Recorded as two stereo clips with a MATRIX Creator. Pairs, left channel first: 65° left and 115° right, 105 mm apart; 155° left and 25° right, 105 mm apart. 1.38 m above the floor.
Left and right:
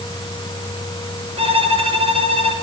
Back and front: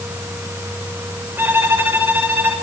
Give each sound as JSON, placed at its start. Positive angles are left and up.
{"t": 1.4, "sound": "a violin", "azimuth_deg": -95, "distance_m": 6.0}